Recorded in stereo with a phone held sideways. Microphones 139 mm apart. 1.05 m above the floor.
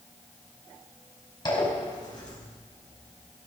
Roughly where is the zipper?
Left.